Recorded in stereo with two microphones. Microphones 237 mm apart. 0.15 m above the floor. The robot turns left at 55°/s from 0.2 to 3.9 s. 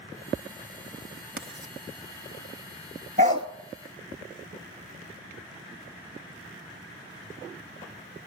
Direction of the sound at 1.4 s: 60° right (ahead or behind).